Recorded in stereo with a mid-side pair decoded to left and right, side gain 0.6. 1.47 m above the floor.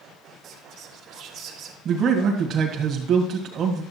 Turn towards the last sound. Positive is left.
turn(degrees=-50)